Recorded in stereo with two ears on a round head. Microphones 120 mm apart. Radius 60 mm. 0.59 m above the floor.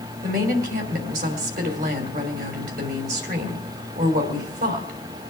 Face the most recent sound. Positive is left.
turn(degrees=-70)  # may be behind; listen again after turning